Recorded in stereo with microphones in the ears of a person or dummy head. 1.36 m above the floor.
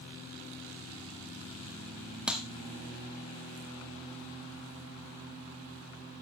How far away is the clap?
About 0.9 m.